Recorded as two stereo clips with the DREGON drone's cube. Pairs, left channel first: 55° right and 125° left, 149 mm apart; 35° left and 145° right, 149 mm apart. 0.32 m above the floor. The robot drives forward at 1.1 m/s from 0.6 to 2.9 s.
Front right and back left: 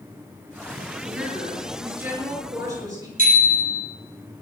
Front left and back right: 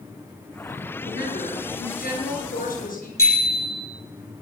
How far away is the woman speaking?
About 6.5 m.